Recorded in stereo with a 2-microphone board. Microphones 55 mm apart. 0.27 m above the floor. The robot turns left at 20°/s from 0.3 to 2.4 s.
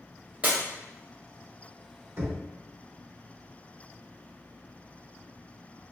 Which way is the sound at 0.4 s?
25° right (ahead or behind).